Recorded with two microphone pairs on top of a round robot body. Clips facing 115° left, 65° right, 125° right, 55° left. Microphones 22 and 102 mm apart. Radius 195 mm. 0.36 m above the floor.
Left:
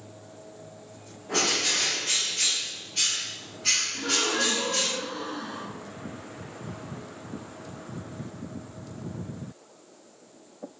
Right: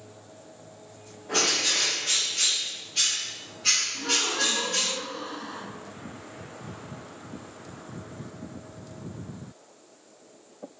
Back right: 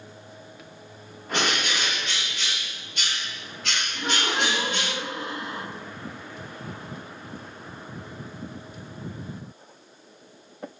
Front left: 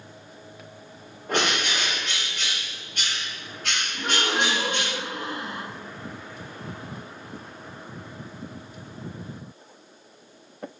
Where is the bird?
25° left, 1.7 m.